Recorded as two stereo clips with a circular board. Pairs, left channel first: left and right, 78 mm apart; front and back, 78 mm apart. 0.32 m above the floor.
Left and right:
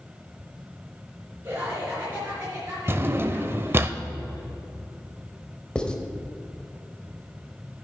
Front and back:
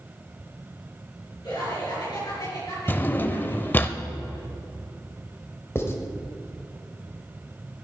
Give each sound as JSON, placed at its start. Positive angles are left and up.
{"t": 1.4, "sound": "laughter", "azimuth_deg": -30, "distance_m": 4.5}
{"t": 2.9, "sound": "a drawer", "azimuth_deg": -50, "distance_m": 0.5}
{"t": 5.8, "sound": "writing", "azimuth_deg": 20, "distance_m": 1.1}